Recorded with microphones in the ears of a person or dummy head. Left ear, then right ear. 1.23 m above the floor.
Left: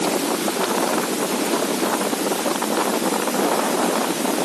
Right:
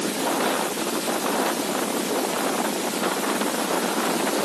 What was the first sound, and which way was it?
Only background noise.